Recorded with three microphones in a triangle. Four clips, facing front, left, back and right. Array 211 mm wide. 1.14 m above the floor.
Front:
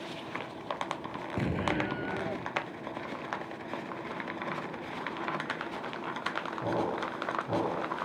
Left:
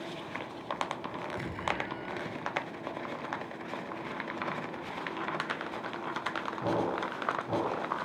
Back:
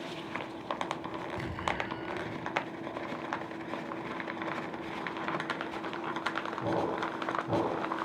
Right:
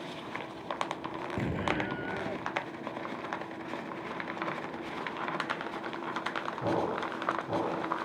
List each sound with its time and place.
1.4 s an explosion: 25° right